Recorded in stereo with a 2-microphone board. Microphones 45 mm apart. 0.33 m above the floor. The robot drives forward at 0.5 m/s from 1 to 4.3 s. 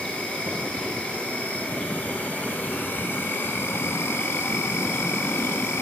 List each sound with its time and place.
0.0 s an insect: 30° left (ahead or behind), 1.9 m; by 5.8 s 80° left, 1.0 m